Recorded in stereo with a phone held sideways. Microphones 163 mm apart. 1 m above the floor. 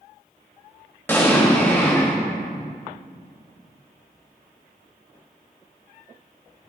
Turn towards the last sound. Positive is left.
turn(degrees=15)  # may be behind; listen again after turning